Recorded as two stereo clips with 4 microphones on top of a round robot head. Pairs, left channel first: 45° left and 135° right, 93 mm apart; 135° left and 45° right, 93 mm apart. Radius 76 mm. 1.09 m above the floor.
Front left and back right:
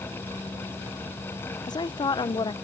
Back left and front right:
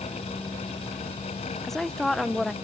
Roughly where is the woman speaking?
Ahead left.